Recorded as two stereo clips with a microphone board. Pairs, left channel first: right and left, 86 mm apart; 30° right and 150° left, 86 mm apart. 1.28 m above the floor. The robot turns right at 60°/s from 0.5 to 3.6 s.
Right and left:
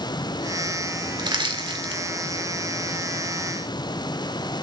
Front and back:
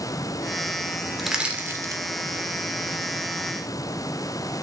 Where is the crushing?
60° left, 1.8 m; by 2.0 s 110° left, 1.8 m.